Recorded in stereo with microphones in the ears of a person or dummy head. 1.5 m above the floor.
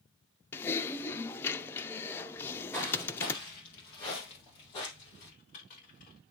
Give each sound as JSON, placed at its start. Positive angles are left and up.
{"t": 0.5, "sound": "typing on a keyboard", "side_deg": 10, "distance_m": 0.6}
{"t": 2.4, "sound": "footsteps", "side_deg": 0, "distance_m": 1.6}
{"t": 5.2, "sound": "typing on a keyboard", "side_deg": 50, "distance_m": 3.5}